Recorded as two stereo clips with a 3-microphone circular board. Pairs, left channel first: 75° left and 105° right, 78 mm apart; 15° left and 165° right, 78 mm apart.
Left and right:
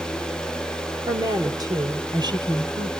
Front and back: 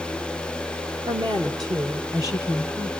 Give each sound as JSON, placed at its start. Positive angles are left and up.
{"t": 1.1, "sound": "a woman speaking", "azimuth_deg": -145, "distance_m": 3.0}